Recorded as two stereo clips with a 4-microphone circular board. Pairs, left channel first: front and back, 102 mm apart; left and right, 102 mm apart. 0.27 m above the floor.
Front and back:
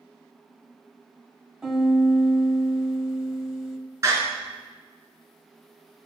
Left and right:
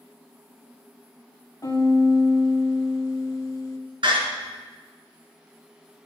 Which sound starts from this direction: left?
A piano, at 1.6 s.